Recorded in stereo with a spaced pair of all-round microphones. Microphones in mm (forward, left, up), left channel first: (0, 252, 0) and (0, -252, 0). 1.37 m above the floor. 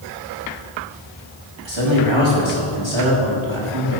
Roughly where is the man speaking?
Right.